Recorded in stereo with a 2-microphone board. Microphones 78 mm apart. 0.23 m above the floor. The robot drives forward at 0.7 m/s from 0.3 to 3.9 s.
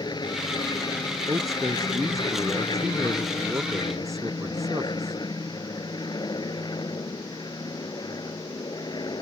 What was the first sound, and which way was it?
An aircraft, 70° left (ahead or behind).